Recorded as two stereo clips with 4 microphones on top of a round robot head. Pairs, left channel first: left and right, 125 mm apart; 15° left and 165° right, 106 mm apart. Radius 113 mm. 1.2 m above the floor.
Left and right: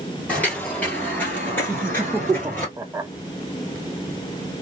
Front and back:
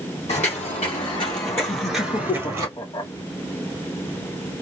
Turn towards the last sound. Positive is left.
turn(degrees=-20)